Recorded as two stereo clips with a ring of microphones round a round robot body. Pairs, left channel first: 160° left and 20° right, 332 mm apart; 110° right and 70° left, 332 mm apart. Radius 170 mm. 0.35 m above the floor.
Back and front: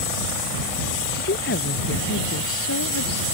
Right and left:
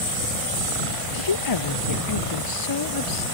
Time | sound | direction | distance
1.1 | a woman speaking | 140° right | ?